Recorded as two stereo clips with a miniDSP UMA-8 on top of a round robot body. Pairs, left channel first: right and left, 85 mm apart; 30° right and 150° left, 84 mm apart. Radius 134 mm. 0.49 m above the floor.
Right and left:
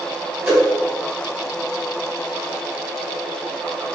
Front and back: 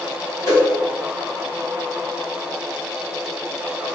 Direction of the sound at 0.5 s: 10° left.